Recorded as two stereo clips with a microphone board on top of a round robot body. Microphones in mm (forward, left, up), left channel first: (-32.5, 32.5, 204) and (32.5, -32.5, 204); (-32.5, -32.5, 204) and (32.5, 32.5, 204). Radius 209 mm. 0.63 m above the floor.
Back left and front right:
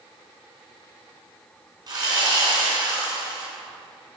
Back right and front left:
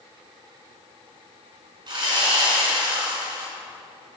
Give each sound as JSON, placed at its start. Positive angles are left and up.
{"t": 1.9, "sound": "sawing", "azimuth_deg": 5, "distance_m": 4.0}